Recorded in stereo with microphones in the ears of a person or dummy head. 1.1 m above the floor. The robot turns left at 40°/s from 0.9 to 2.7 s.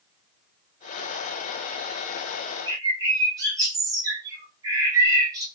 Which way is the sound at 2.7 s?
20° right (ahead or behind).